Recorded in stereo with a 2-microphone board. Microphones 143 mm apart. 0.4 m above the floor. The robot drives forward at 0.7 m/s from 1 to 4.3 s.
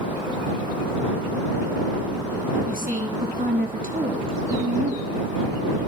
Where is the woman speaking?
80° right, 5.5 m.